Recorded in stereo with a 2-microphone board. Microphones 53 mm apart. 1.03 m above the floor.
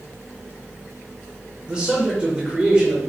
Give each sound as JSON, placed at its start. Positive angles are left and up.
{"t": 1.7, "sound": "a man speaking", "side_deg": -20, "distance_m": 0.8}